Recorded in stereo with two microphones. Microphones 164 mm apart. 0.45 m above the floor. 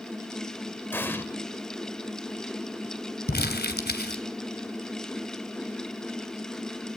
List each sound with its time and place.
0.9 s an explosion: 15° left (ahead or behind), 1.3 m
3.3 s crumpling: 80° left, 2.5 m